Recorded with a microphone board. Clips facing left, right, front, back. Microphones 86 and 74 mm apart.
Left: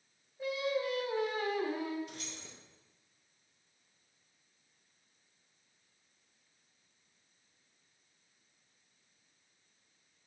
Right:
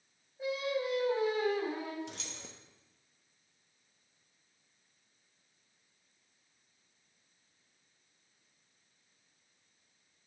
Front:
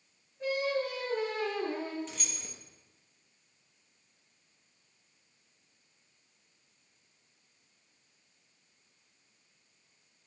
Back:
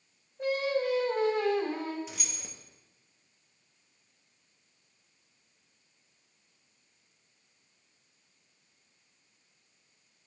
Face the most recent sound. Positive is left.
turn(degrees=-95)